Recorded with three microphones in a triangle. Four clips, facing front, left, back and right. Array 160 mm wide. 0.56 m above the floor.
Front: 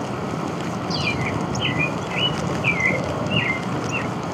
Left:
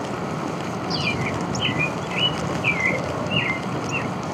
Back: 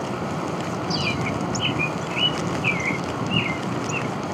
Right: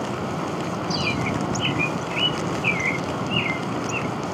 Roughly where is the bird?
Ahead left.